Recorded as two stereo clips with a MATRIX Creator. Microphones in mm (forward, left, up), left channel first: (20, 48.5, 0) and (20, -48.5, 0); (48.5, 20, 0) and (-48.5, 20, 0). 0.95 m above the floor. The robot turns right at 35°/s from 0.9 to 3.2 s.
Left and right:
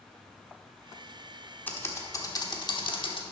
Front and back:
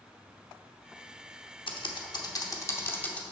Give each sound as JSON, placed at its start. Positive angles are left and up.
{"t": 1.7, "sound": "typing on a keyboard", "azimuth_deg": 20, "distance_m": 0.9}